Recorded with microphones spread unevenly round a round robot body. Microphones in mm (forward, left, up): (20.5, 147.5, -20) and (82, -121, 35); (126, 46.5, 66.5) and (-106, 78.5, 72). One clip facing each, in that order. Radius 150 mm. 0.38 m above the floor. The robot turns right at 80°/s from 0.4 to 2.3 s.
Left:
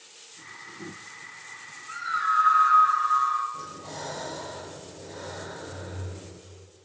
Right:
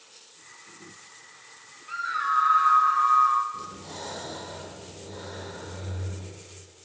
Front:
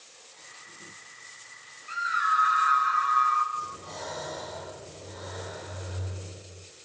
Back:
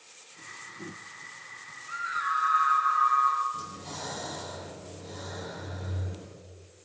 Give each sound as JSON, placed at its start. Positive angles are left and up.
{"t": 1.9, "sound": "a scream", "azimuth_deg": -35, "distance_m": 1.5}
{"t": 3.5, "sound": "breathing", "azimuth_deg": -145, "distance_m": 3.5}